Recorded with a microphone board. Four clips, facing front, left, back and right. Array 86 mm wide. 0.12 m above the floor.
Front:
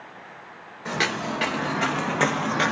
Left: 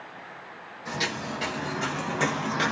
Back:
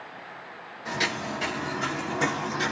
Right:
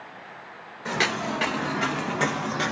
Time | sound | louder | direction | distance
0.8 | footsteps | right 5 dB, front 3 dB | 60° right | 1.0 m